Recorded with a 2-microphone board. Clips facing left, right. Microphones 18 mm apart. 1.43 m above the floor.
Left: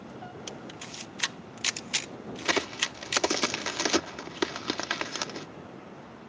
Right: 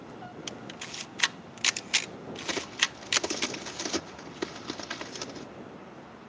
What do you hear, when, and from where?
0.5 s a camera shutter: 25° right (ahead or behind)
2.5 s a crack: 55° left (ahead or behind)